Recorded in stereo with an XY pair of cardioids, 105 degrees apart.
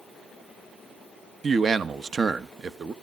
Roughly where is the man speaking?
Ahead right.